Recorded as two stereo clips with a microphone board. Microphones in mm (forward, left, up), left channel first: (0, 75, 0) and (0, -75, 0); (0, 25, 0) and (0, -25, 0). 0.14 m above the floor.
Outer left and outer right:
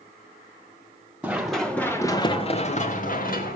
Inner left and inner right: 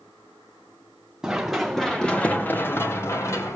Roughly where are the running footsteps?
Centre.